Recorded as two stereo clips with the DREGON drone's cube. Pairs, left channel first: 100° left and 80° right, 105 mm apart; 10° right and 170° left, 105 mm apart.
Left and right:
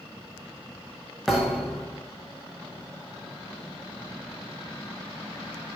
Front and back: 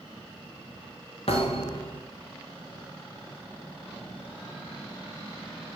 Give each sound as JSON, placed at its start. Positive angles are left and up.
{"t": 1.3, "sound": "a thud", "azimuth_deg": 10, "distance_m": 8.0}